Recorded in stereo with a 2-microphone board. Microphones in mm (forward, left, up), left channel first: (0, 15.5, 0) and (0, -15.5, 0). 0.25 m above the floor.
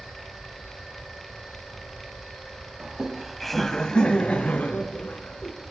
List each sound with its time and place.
2.8 s laughter: 25° right (ahead or behind), 1.9 m; by 5.5 s 65° left (ahead or behind), 3 m